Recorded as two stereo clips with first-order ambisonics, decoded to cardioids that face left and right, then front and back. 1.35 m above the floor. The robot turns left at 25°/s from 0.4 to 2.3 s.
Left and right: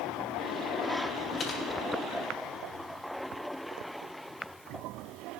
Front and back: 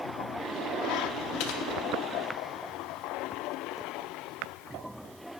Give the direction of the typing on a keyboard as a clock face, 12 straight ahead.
11 o'clock.